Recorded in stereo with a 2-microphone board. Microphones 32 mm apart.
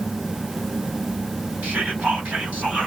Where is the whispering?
60° right (ahead or behind), 1.9 m.